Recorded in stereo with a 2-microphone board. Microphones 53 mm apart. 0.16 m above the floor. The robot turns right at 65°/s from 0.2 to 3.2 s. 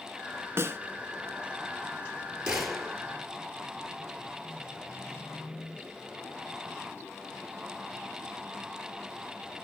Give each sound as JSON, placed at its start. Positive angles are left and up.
{"t": 0.6, "sound": "a snare drum", "side_deg": -55, "distance_m": 1.3}
{"t": 2.5, "sound": "a gunshot", "azimuth_deg": -20, "distance_m": 3.0}